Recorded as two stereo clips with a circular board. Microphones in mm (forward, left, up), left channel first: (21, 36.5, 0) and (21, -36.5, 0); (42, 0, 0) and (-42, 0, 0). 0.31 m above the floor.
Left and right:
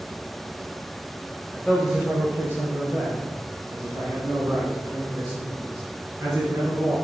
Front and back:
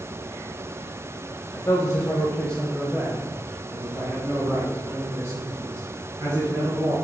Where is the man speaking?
10° left, 1.3 m; by 6.9 s 130° right, 4.5 m.